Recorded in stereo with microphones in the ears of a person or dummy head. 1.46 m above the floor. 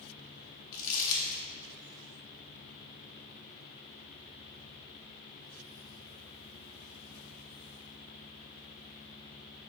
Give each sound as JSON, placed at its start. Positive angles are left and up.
{"t": 0.7, "sound": "crumpling", "side_deg": 70, "distance_m": 0.6}